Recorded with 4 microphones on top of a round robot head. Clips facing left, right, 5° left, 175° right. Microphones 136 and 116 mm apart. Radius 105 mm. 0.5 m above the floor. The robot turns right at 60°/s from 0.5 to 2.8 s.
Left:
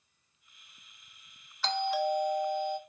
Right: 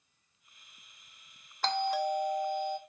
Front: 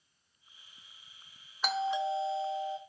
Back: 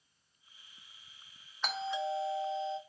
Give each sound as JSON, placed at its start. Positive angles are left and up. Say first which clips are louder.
{"t": 1.6, "sound": "a doorbell", "louder": "even, front 4 dB", "azimuth_deg": -80, "distance_m": 1.6}